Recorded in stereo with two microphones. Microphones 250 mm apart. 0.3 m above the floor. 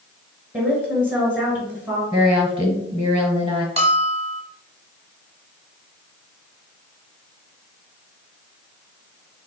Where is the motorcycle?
I don't hear a motorcycle.